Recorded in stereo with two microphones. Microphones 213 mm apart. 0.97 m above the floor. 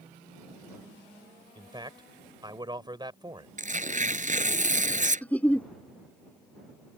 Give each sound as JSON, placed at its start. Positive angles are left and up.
{"t": 1.6, "sound": "a man speaking", "side_deg": -20}
{"t": 3.6, "sound": "tearing paper", "side_deg": -40}
{"t": 5.2, "sound": "a giggle", "side_deg": 10}